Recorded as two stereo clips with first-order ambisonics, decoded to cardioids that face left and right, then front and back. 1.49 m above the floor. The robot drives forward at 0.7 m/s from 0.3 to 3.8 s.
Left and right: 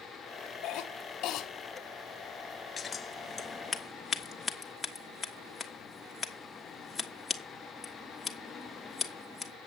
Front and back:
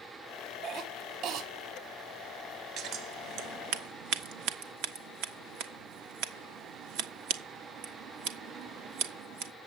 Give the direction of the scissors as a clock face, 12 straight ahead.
7 o'clock.